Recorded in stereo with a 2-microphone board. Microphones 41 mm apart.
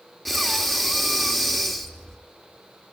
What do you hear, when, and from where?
0.2 s breathing: 5° left (ahead or behind), 1.5 m